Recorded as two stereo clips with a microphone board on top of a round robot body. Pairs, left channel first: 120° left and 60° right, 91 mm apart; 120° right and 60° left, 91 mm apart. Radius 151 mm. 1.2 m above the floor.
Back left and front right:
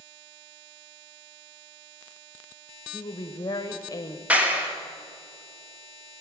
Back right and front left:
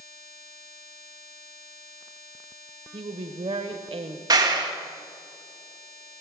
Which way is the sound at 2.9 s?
70° left.